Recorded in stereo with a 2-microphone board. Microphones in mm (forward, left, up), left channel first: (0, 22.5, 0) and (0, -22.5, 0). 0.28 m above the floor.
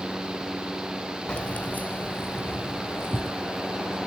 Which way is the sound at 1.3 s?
20° left (ahead or behind).